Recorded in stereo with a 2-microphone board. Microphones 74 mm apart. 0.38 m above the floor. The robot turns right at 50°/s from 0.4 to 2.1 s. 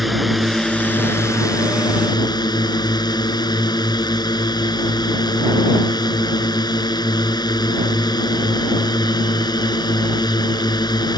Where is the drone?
Straight ahead; by 11.2 s 85° left.